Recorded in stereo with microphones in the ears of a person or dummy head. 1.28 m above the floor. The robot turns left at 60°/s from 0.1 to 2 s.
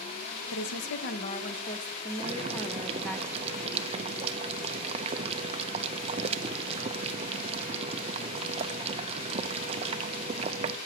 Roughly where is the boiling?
Right.